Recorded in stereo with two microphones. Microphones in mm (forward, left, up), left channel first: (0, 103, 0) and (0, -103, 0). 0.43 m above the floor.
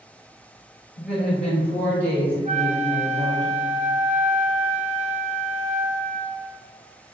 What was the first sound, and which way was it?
A woman speaking, centre (ahead or behind).